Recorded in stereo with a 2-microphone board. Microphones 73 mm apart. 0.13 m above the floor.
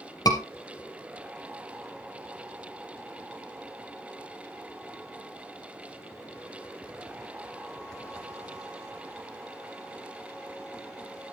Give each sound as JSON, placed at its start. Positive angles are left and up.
{"t": 0.2, "sound": "a scream", "side_deg": 65, "distance_m": 3.5}